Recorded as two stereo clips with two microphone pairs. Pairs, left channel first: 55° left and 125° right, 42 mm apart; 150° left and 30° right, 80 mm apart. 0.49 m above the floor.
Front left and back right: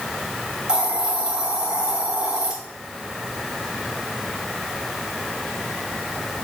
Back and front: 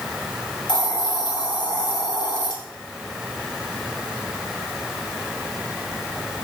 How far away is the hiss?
About 1.8 m.